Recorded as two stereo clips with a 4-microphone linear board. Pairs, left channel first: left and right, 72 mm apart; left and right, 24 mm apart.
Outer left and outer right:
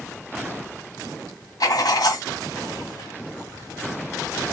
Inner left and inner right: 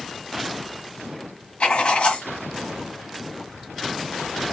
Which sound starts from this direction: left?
Writing, at 1.6 s.